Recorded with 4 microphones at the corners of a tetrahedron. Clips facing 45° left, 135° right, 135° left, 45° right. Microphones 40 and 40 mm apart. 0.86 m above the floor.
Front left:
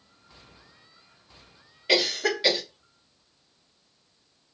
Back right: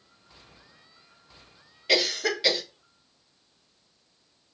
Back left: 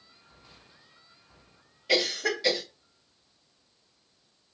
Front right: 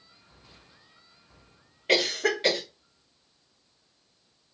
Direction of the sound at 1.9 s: 35° right.